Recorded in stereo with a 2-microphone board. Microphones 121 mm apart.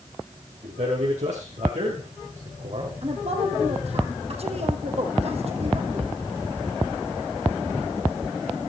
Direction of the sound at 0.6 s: 70° right (ahead or behind).